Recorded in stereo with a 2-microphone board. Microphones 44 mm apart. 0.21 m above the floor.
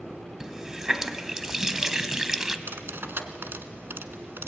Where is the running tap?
15° right (ahead or behind), 0.8 m.